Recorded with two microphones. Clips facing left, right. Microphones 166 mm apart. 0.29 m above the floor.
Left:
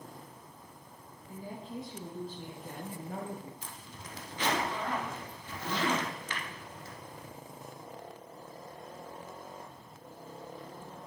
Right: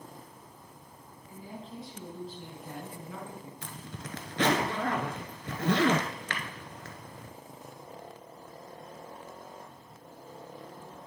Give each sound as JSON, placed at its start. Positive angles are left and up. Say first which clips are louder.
{"t": 1.3, "sound": "a woman speaking", "louder": "left 2 dB", "side_deg": 45, "distance_m": 3.5}
{"t": 3.6, "sound": "a zipper", "louder": "right 5 dB", "side_deg": -90, "distance_m": 0.9}